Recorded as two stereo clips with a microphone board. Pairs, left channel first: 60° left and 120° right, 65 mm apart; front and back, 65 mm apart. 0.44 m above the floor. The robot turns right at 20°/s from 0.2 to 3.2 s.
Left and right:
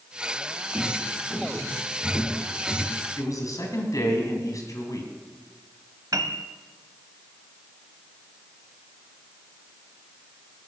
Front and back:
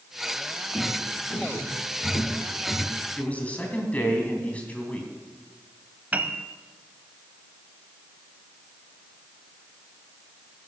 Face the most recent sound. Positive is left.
turn(degrees=-115)